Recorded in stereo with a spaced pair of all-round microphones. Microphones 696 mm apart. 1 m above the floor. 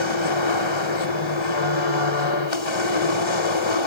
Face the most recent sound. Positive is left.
turn(degrees=40)  # may be behind; listen again after turning